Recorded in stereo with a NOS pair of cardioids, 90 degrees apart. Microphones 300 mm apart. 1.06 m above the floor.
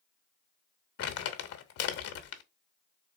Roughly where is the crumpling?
Ahead left.